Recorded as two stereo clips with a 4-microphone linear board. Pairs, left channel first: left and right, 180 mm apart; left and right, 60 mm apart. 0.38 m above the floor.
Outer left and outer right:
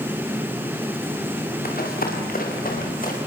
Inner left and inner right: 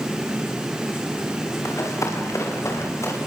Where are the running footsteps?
55° left (ahead or behind), 7 m; by 3.2 s 50° left (ahead or behind), 8 m.